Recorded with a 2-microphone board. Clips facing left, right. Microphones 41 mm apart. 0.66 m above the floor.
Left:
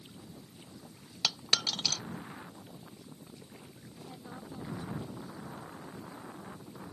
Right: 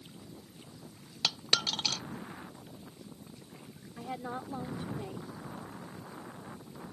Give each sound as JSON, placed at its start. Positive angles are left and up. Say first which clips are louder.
{"t": 1.2, "sound": "a dropped coin", "louder": "right 1 dB", "side_deg": -20}
{"t": 4.0, "sound": "a woman speaking", "louder": "right 9 dB", "side_deg": -60}